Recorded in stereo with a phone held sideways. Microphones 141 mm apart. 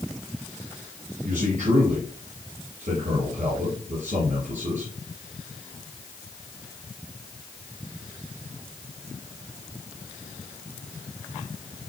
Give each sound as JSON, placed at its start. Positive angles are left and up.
{"t": 1.2, "sound": "a man speaking", "side_deg": -60, "distance_m": 5.5}